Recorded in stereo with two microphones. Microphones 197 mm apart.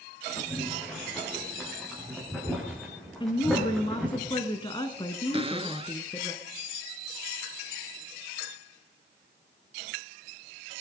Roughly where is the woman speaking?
Left.